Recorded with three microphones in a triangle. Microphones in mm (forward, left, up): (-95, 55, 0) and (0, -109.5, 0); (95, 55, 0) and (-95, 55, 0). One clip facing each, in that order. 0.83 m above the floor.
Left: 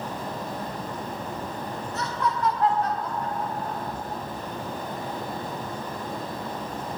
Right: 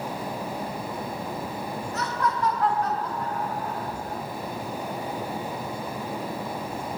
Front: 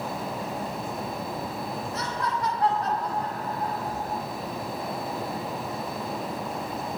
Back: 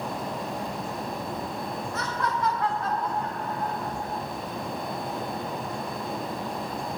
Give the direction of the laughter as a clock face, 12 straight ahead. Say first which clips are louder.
Even, back 2 dB; 10 o'clock.